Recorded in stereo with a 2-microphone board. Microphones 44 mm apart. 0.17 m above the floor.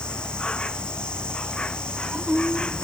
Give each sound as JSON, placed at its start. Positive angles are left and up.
{"t": 0.0, "sound": "an insect", "side_deg": 20}